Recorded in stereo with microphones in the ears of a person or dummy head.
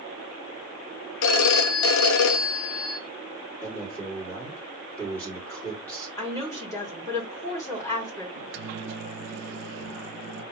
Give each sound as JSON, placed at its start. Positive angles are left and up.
{"t": 1.2, "sound": "a phone ringing", "side_deg": 65, "distance_m": 0.7}
{"t": 3.6, "sound": "a man speaking", "side_deg": 10, "distance_m": 3.0}
{"t": 6.2, "sound": "a woman speaking", "side_deg": 15, "distance_m": 3.0}
{"t": 8.3, "sound": "a microwave", "side_deg": -55, "distance_m": 0.5}